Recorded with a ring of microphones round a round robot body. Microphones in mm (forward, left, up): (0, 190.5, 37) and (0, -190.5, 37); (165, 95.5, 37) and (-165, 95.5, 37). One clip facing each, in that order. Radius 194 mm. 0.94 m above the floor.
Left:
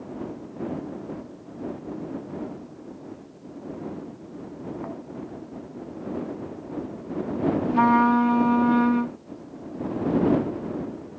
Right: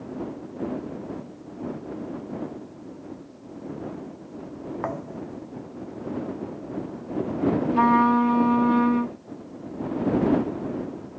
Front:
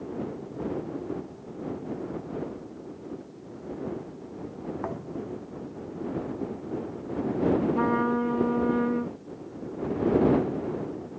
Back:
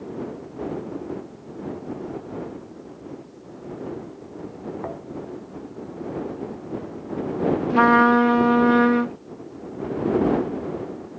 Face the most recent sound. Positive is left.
turn(degrees=175)